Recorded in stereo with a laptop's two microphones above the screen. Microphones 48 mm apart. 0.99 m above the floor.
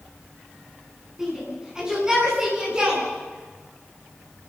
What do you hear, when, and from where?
1.2 s a shout: 15° right (ahead or behind), 8.5 m; by 3.0 s 20° right (ahead or behind), 9 m